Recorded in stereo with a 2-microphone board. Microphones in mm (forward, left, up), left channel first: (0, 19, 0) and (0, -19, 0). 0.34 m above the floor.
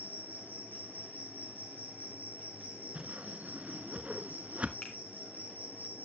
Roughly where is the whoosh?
Right.